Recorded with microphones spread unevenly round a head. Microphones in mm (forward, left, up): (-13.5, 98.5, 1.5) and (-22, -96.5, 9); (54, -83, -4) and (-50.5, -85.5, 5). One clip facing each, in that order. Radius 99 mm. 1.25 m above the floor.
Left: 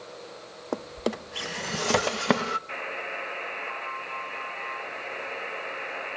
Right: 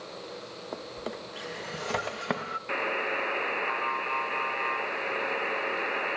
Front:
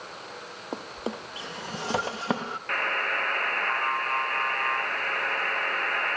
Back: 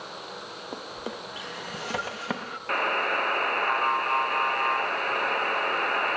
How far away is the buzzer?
About 1.2 m.